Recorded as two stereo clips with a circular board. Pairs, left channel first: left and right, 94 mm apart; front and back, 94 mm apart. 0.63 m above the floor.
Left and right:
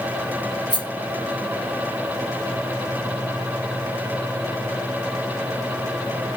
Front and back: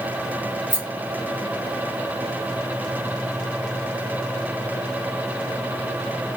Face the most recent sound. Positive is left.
turn(degrees=65)